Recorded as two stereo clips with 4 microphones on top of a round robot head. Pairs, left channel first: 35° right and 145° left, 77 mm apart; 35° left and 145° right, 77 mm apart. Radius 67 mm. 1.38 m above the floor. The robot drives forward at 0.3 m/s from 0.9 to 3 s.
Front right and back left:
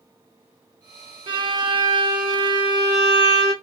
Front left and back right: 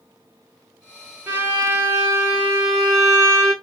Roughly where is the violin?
Behind left.